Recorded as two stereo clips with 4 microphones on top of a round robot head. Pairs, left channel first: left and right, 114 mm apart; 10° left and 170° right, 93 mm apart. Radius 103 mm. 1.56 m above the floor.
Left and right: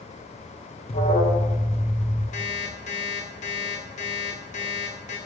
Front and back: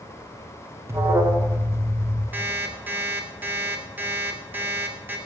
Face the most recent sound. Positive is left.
turn(degrees=120)